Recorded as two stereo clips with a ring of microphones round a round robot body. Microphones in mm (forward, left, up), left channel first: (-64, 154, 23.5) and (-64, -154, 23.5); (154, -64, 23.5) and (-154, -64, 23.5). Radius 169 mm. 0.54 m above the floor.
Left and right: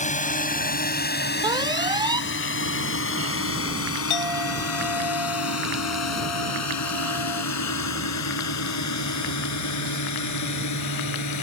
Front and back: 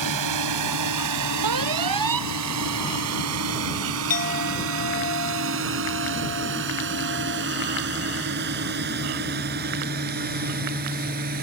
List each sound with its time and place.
0.0 s a drone: 155° left; by 11.4 s 115° left
1.4 s an alarm: 165° right
4.1 s a clink: 65° left